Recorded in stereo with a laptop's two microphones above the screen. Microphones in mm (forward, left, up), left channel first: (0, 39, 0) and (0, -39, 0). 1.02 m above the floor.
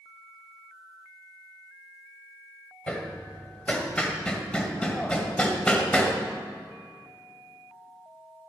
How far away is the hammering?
About 1.8 m.